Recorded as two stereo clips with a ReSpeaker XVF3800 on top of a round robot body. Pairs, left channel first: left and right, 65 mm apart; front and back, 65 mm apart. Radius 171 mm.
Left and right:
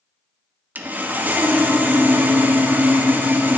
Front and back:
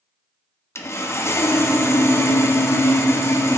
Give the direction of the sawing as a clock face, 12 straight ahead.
1 o'clock.